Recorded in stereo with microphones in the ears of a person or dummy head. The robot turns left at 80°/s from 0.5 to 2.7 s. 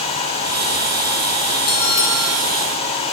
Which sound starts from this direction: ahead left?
A bell, at 1.7 s.